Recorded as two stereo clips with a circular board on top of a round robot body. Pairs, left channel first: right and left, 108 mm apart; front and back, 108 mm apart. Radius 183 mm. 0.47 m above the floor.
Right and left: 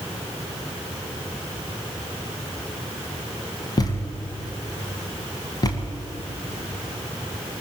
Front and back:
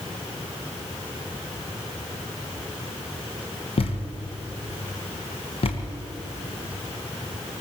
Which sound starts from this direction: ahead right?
A thud, at 3.8 s.